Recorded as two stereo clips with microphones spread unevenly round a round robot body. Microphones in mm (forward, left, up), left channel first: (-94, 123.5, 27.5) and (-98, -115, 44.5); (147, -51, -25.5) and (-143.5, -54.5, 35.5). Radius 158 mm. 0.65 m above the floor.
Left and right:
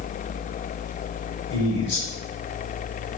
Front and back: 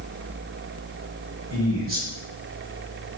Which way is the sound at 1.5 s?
115° left.